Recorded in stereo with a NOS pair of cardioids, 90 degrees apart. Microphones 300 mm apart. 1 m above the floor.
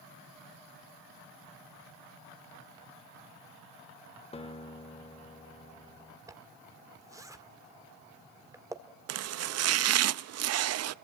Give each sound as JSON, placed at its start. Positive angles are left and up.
{"t": 4.3, "sound": "a guitar", "azimuth_deg": 20, "distance_m": 1.5}
{"t": 6.3, "sound": "a zipper", "azimuth_deg": -10, "distance_m": 1.6}
{"t": 9.1, "sound": "chopping", "azimuth_deg": -55, "distance_m": 0.6}